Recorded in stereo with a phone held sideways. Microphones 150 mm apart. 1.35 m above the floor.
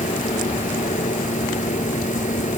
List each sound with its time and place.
0.0 s a machine running: 55° left (ahead or behind)